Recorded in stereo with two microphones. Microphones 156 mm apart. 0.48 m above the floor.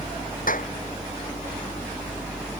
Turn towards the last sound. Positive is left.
turn(degrees=65)  # may be behind; listen again after turning